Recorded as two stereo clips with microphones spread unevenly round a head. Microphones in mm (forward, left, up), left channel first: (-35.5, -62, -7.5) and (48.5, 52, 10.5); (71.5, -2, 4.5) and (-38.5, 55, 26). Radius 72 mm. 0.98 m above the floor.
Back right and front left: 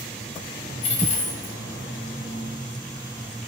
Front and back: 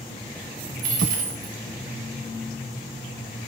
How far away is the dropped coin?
About 1.6 m.